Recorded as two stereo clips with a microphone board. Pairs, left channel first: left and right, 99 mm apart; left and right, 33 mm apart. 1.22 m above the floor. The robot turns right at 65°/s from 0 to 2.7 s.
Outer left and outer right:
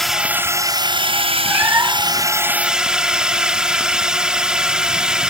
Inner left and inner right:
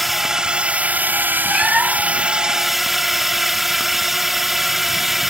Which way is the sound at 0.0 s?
175° left.